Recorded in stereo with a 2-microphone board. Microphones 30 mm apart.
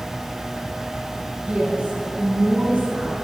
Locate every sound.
1.5 s a woman speaking: 40° right (ahead or behind), 1.5 m; by 3.1 s 55° right (ahead or behind), 2.5 m